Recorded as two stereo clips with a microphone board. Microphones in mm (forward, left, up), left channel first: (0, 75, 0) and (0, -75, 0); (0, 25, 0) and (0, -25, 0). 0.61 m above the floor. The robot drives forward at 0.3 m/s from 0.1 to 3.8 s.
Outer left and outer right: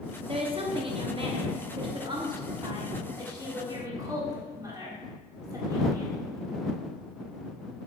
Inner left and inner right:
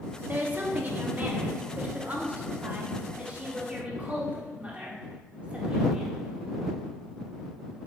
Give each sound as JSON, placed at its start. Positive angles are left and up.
{"t": 0.3, "sound": "a woman speaking", "side_deg": -35, "distance_m": 1.0}